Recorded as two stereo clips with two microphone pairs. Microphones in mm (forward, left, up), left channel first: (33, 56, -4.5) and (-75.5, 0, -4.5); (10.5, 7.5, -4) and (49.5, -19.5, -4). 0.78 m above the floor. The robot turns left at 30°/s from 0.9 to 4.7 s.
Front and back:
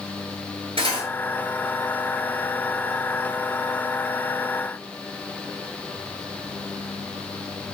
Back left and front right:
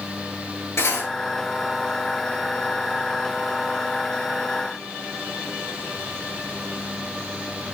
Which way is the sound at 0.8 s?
165° left.